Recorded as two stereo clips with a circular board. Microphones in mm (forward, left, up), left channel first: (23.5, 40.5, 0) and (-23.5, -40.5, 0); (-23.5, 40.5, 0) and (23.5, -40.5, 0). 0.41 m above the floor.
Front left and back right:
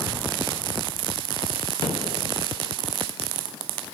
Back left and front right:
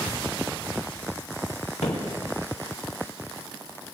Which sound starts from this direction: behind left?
Footsteps, at 1.8 s.